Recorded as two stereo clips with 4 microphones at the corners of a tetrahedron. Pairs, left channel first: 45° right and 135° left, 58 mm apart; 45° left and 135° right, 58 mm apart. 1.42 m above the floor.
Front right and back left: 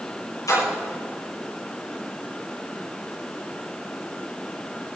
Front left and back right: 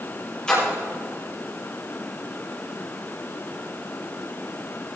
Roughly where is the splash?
Ahead right.